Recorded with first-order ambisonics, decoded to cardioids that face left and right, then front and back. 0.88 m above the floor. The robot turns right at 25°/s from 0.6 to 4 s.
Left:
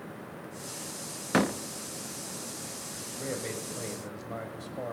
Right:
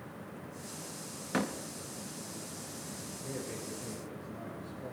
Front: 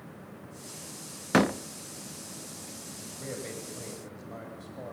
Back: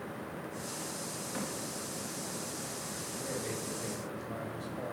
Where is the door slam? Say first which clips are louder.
Left 7 dB, front 17 dB; 25° left, 0.6 m; by 1.6 s 30° left, 0.6 m.